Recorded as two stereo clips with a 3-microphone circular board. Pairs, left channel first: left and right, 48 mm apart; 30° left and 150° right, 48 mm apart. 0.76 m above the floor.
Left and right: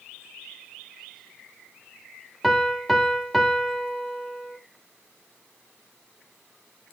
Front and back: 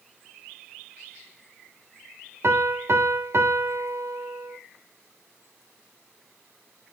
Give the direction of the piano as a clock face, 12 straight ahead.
6 o'clock.